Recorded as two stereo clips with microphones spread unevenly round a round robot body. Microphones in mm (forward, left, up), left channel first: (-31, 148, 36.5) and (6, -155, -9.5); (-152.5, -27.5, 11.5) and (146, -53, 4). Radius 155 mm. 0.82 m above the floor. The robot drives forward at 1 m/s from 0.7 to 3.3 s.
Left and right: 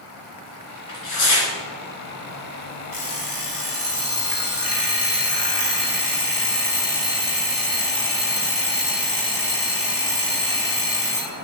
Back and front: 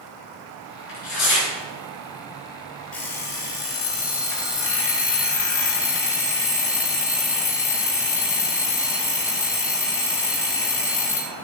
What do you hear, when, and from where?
0.9 s tearing paper: 125° left, 4 m; by 1.5 s 130° left, 4.5 m
2.9 s an alarm clock: 140° left, 2.5 m; by 11.3 s 145° left, 2.5 m